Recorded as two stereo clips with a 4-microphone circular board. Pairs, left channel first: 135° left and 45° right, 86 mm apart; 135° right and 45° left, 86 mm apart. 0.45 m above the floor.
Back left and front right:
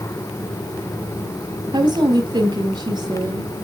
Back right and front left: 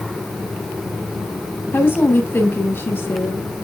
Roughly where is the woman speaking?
Right.